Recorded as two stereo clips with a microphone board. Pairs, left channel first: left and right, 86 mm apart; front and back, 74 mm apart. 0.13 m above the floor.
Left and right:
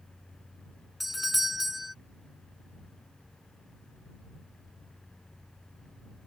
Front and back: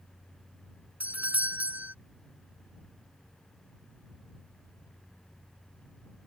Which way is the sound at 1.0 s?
175° right.